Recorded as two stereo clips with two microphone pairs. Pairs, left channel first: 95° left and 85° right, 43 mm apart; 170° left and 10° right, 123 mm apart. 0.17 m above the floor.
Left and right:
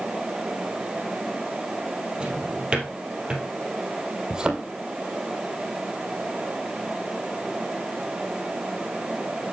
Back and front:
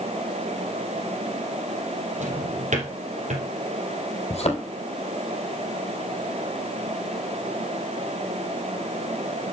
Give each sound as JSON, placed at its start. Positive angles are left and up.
{"t": 2.2, "sound": "a drawer", "azimuth_deg": -15, "distance_m": 3.0}
{"t": 4.3, "sound": "a thud", "azimuth_deg": -155, "distance_m": 2.0}